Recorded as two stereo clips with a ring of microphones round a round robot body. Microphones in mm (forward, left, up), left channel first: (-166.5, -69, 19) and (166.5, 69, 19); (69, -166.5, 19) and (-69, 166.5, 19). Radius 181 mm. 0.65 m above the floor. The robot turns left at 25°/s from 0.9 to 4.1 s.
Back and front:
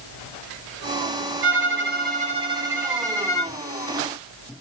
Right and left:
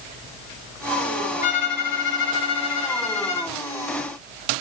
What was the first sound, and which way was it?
A violin, 30° right.